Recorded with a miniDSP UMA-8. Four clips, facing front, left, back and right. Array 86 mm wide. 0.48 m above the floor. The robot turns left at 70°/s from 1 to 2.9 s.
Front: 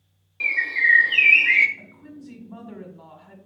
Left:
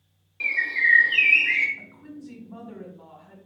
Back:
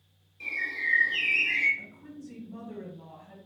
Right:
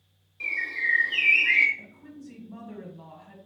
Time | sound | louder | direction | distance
0.4 | a bird | left 6 dB, front 11 dB | 30° left | 0.7 m
1.8 | a woman speaking | left 3 dB, front 2 dB | 80° left | 1.5 m